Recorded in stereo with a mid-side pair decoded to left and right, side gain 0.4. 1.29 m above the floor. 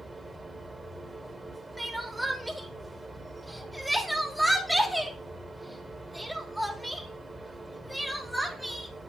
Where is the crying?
5° right, 3 m.